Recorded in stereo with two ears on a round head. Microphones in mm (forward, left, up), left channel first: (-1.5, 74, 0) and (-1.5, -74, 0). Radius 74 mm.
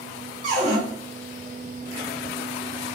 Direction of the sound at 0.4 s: 50° right (ahead or behind).